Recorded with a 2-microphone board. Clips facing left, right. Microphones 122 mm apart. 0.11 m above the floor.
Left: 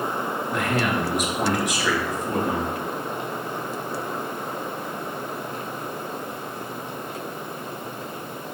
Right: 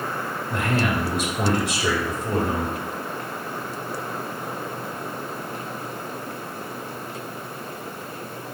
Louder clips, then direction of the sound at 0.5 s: Right 1 dB; 30° right (ahead or behind).